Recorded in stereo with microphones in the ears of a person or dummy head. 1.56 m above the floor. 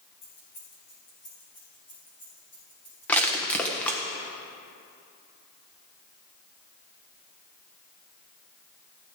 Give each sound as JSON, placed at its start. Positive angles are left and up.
{"t": 0.2, "sound": "keys jangling", "side_deg": 50, "distance_m": 4.5}
{"t": 3.1, "sound": "crushing", "side_deg": 10, "distance_m": 1.2}